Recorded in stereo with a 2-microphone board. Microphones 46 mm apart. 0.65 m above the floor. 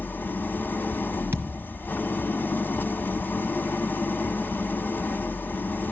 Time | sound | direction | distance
0.0 | an engine running | 50° left (ahead or behind) | 0.9 m
1.3 | a thud | 65° right (ahead or behind) | 1.3 m